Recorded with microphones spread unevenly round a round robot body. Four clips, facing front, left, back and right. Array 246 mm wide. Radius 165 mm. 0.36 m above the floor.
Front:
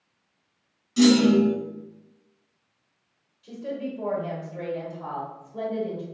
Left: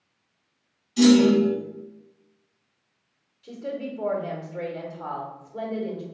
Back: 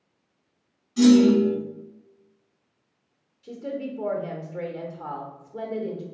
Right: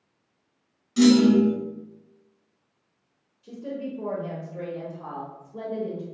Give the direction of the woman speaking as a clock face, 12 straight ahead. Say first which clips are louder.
Left 1 dB, even; 6 o'clock.